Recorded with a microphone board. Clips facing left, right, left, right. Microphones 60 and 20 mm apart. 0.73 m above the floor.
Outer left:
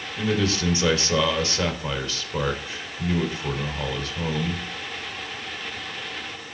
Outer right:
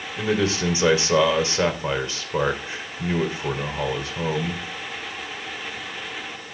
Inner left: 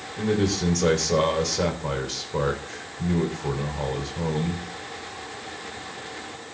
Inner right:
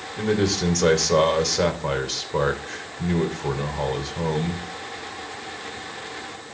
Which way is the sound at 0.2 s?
20° right (ahead or behind).